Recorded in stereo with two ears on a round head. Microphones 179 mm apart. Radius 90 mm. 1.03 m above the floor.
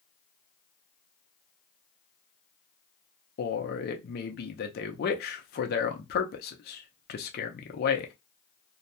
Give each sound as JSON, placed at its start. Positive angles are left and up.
{"t": 3.4, "sound": "a man speaking", "side_deg": 50, "distance_m": 0.6}